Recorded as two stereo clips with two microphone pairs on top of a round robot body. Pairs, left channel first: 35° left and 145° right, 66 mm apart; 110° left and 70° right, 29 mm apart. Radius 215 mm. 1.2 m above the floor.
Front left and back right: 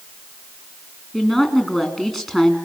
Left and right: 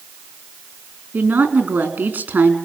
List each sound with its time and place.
1.1 s a woman speaking: 60° right, 4 m